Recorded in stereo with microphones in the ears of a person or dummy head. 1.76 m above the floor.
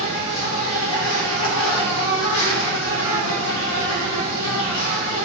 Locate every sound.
0.0 s an insect: 90° left, 1.2 m